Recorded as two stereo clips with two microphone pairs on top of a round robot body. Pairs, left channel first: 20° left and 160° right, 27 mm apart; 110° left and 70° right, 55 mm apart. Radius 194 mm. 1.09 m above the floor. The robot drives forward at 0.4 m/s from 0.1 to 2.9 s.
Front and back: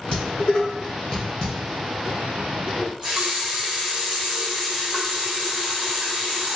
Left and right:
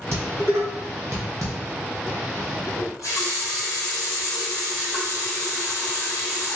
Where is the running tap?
125° left, 1.0 m.